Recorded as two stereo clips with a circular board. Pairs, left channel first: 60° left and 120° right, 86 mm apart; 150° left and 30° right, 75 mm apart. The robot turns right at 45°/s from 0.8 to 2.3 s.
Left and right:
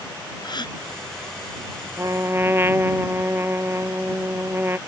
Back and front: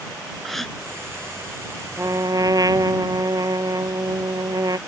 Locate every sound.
0.4 s a gasp: 65° left
2.0 s a trumpet: 75° right; by 4.8 s 60° right